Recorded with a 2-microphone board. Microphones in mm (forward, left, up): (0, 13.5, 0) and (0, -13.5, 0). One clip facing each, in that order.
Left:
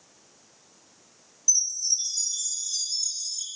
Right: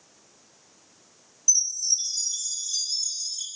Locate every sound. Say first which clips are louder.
1.5 s a chime: right 1 dB; 20° right (ahead or behind), 3.5 m